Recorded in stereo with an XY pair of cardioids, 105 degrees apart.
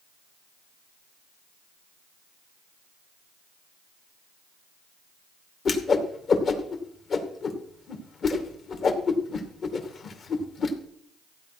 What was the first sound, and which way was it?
A whoosh, 50° left.